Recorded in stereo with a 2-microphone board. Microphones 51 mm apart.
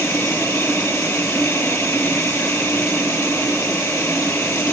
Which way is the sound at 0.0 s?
75° left (ahead or behind).